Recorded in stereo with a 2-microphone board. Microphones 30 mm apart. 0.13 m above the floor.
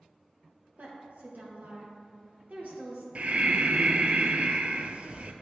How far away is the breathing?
About 0.7 m.